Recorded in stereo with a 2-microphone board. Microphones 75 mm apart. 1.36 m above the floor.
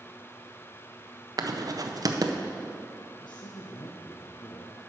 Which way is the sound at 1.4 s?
55° right (ahead or behind).